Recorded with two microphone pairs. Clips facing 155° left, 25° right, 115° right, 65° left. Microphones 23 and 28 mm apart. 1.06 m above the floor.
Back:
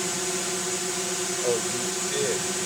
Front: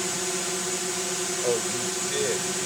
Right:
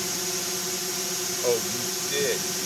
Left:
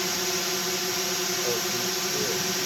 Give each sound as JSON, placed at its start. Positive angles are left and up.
{"t": 0.0, "sound": "a drone", "azimuth_deg": 65}
{"t": 1.4, "sound": "a man speaking", "azimuth_deg": -110}